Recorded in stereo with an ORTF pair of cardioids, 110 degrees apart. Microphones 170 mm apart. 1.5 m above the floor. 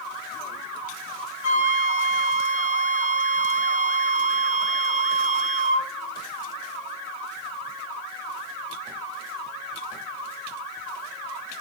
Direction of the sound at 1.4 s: 15° right.